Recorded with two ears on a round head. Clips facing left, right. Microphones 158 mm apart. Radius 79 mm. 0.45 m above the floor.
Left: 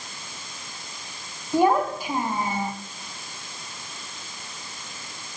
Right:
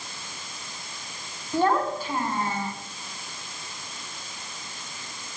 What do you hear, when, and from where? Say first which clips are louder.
1.5 s a child speaking: left 3 dB; 10° left (ahead or behind), 3 m